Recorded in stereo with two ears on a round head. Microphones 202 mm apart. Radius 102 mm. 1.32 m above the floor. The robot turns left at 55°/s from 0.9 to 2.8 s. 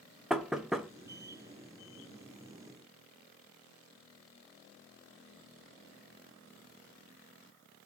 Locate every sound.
0.3 s knocking: centre (ahead or behind), 0.6 m